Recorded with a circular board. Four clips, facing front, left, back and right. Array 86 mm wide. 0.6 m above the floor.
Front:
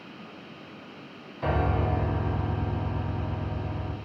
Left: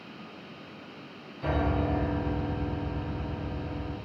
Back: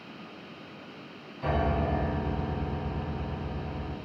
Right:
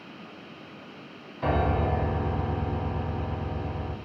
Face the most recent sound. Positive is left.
turn(degrees=-55)